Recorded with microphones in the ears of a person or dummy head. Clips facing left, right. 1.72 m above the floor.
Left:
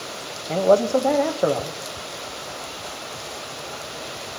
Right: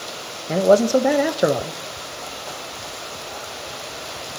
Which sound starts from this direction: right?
A man speaking, at 0.5 s.